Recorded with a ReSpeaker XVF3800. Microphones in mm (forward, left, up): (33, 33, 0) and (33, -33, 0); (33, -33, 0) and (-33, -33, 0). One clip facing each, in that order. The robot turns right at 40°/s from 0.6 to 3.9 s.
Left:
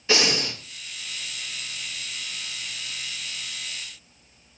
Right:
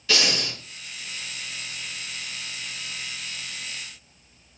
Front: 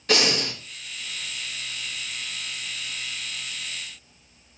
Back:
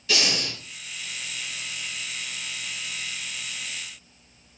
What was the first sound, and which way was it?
Breathing, 30° left.